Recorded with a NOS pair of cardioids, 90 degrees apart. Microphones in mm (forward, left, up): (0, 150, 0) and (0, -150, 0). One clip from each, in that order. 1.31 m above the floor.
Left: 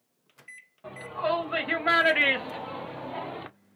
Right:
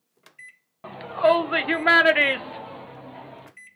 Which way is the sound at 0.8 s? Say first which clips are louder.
Right 9 dB; 50° right.